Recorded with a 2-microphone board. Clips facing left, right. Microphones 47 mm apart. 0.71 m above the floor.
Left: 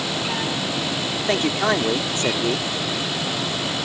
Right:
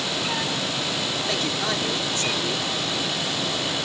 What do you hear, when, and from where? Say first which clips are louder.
1.3 s a man speaking: left 9 dB; 35° left (ahead or behind)